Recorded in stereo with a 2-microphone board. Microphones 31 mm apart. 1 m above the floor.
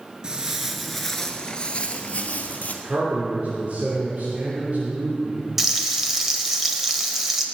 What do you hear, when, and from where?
0.2 s footsteps: 25° right (ahead or behind), 1.0 m; by 2.7 s 45° left (ahead or behind), 1.7 m
2.8 s a man speaking: 50° right (ahead or behind), 3 m
5.6 s frying: 10° right (ahead or behind), 1.4 m